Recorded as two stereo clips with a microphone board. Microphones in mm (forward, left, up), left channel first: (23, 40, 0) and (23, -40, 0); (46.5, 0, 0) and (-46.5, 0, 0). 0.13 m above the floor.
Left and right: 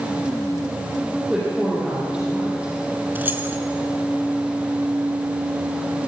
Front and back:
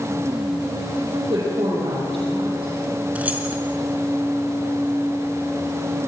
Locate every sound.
1.1 s a woman speaking: 165° right, 5.5 m
3.1 s keys jangling: 125° right, 1.2 m